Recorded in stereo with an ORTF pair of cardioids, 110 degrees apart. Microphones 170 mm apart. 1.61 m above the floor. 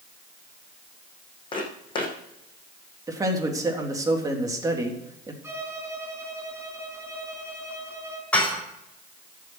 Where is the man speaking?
20° right, 3.5 m.